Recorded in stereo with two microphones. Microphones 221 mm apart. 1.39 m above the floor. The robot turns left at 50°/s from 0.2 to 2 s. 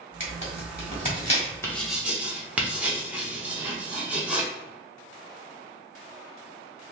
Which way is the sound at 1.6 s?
10° left (ahead or behind).